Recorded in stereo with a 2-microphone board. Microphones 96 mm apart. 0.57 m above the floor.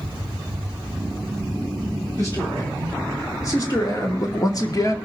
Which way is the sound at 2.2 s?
35° left (ahead or behind).